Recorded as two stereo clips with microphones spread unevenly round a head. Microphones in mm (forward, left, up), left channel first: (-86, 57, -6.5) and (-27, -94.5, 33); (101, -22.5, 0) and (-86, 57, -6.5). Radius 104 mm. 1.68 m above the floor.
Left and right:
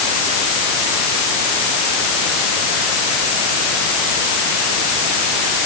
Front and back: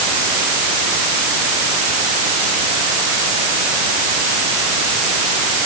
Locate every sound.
Only background noise.